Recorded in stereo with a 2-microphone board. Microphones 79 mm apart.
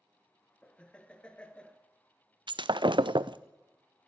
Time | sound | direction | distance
0.6 | laughter | 15° left (ahead or behind) | 1.6 m
2.5 | breaking glass | 75° right (ahead or behind) | 0.6 m